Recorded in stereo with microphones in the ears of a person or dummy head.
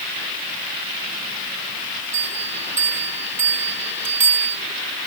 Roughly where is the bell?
Centre.